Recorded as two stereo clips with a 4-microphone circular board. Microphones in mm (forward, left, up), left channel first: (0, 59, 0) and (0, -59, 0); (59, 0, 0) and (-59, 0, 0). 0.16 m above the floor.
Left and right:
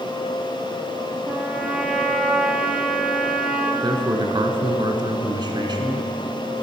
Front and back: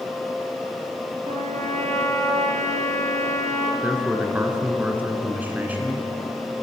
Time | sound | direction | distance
1.2 | a trumpet | 175° right | 1.1 m
3.8 | a man speaking | 110° right | 1.4 m